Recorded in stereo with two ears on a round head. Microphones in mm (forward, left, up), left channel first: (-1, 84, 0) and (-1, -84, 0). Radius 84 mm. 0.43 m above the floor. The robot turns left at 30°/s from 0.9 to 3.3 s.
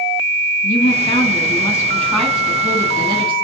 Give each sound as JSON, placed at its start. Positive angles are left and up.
{"t": 0.6, "sound": "a woman speaking", "azimuth_deg": 40, "distance_m": 3.5}